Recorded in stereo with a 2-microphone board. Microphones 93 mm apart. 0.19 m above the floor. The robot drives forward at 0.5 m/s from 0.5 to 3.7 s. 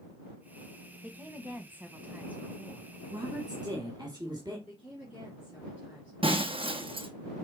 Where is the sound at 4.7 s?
15° right (ahead or behind), 2.5 m.